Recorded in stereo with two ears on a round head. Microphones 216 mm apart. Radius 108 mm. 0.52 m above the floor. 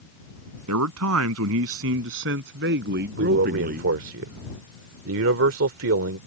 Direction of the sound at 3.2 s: 60° right (ahead or behind).